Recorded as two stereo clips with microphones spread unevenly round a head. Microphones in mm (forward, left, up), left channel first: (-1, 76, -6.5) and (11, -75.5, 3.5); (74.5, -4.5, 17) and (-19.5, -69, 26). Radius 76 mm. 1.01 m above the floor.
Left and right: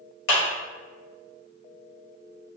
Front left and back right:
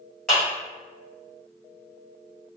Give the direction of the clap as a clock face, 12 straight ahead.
8 o'clock.